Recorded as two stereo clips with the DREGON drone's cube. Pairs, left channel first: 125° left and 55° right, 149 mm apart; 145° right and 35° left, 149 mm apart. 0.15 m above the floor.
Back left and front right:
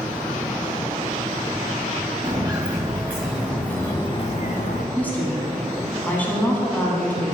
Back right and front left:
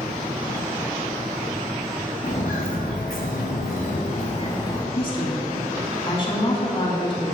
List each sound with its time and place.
2.2 s footsteps: 115° right, 2 m; by 4.8 s 145° left, 1.3 m
5.0 s a woman speaking: 165° right, 1.5 m